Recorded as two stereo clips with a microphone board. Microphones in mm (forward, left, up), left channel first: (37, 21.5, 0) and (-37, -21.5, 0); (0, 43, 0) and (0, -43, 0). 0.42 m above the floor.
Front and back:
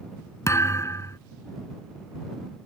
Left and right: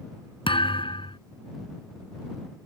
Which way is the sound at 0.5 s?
85° left.